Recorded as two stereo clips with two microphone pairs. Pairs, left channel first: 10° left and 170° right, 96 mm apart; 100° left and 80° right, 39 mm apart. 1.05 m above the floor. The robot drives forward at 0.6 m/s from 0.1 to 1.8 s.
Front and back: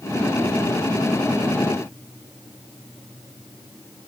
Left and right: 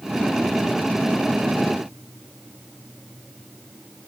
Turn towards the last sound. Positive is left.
No sound to turn to.